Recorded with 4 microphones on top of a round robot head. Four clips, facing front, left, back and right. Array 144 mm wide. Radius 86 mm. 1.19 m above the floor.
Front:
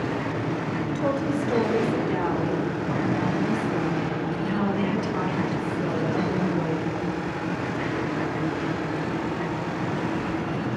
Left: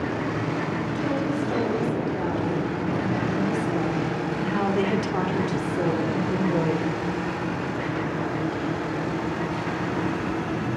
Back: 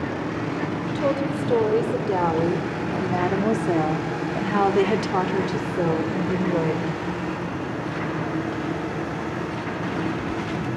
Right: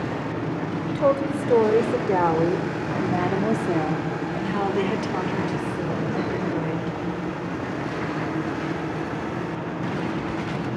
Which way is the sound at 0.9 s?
105° right.